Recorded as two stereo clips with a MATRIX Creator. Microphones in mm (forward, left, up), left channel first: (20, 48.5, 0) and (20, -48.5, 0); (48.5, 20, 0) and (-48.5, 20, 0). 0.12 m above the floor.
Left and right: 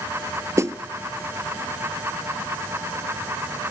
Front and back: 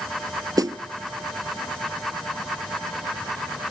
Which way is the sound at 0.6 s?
140° right.